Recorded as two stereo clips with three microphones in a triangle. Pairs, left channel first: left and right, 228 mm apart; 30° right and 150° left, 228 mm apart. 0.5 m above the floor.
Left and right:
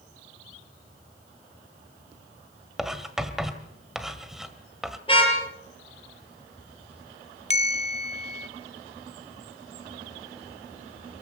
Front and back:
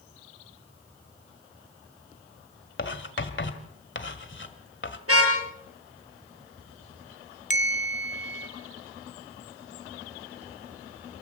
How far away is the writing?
About 1.7 m.